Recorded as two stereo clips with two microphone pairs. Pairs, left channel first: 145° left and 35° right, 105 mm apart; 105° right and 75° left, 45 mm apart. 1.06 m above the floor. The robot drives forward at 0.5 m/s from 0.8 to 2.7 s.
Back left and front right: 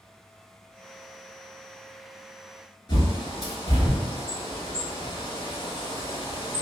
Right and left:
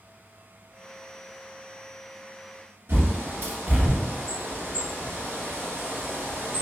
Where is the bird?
110° left, 1.6 m.